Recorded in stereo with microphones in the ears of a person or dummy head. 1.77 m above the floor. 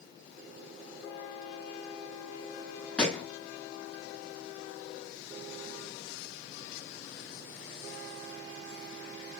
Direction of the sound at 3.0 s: 10° left (ahead or behind).